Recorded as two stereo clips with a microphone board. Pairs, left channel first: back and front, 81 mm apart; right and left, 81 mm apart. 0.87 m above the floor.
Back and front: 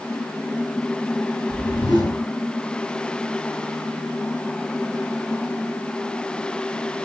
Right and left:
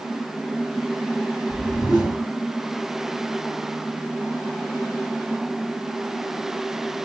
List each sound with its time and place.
1.5 s a whoosh: 165° left, 3 m